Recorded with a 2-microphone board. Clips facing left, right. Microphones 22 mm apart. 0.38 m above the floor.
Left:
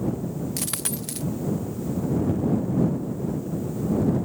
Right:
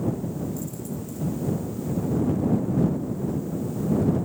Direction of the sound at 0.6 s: 80° left.